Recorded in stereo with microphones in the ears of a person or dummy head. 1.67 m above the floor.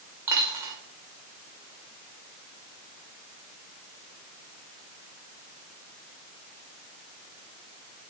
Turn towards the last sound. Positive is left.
turn(degrees=-25)  # may be behind; listen again after turning